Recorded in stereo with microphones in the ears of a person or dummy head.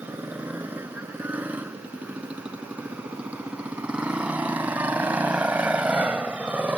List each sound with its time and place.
0.0 s a motorcycle: 10° right (ahead or behind)